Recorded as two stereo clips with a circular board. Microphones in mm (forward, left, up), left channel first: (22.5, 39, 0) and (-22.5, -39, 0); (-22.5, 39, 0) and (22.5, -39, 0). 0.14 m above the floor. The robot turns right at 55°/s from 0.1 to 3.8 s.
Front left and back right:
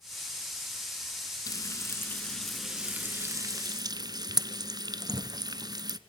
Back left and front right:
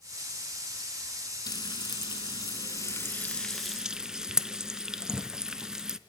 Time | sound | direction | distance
1.5 | frying | 90° left | 0.5 m